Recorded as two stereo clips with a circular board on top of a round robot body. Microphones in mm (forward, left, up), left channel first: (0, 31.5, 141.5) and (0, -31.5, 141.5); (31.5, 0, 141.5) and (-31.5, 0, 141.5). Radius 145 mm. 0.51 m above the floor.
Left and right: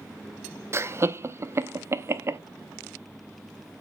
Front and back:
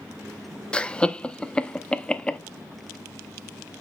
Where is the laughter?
70° right, 0.8 m.